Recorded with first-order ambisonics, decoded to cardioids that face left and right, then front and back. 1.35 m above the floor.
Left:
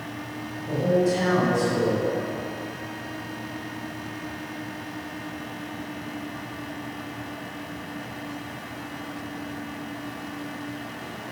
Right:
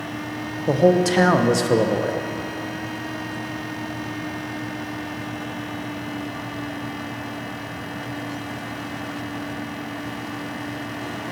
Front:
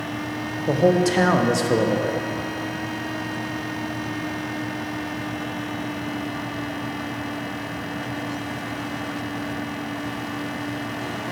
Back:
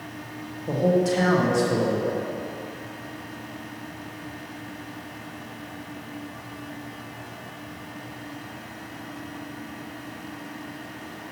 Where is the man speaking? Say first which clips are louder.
Right 5 dB, front 3 dB; 60° right, 0.6 m.